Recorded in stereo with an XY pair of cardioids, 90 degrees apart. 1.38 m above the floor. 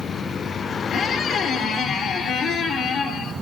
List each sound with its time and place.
0.9 s a squeak: 70° left, 2.5 m